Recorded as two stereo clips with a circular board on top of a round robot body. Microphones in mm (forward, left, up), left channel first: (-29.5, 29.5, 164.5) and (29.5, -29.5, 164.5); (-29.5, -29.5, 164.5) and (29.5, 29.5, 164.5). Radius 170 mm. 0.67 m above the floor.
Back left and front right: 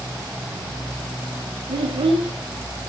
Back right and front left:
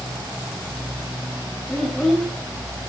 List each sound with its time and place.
1.7 s a child speaking: 50° right, 2 m